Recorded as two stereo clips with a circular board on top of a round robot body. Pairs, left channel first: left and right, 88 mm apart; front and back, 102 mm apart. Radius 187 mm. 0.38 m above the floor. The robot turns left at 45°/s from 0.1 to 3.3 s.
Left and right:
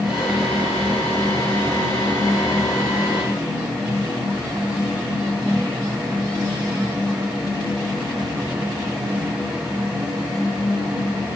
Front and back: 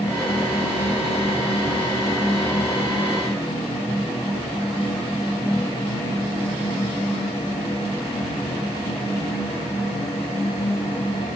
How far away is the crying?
I don't hear crying.